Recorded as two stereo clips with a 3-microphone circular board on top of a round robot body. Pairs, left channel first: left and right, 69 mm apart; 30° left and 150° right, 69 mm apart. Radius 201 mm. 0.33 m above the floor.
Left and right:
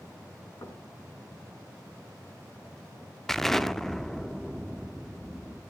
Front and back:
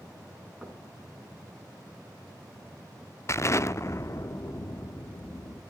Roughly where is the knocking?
Behind left.